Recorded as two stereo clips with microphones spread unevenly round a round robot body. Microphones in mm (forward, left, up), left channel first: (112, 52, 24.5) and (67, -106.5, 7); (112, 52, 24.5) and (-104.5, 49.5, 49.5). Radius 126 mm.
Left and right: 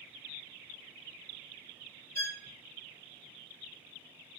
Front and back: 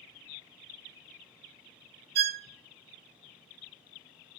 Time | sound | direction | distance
2.1 | a violin | 150° left | 0.5 m